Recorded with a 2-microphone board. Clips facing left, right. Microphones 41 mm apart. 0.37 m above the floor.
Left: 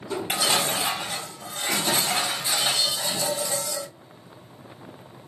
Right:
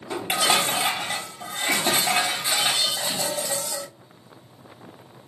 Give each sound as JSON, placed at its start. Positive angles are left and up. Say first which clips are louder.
{"t": 0.1, "sound": "dishes clattering", "louder": "right 2 dB", "side_deg": -55, "distance_m": 1.2}